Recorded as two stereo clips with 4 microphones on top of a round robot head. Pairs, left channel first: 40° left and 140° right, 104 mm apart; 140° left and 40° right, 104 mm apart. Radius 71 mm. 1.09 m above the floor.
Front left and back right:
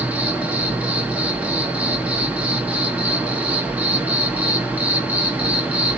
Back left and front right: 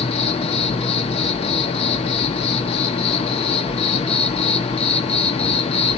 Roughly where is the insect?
Behind left.